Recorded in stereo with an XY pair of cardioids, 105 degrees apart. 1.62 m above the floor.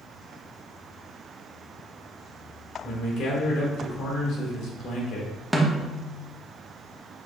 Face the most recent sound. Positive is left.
turn(degrees=-5)